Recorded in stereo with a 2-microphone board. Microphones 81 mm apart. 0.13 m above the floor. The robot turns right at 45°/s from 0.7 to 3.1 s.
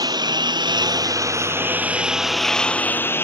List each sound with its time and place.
0.0 s a lawn mower: 60° right (ahead or behind); by 3.2 s 25° left (ahead or behind)